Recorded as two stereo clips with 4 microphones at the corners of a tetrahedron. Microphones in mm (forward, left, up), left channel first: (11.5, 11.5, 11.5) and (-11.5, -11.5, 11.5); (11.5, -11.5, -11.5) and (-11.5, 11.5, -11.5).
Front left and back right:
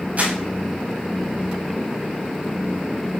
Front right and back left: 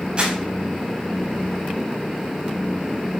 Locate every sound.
0.2 s crumpling: 170° right, 5 m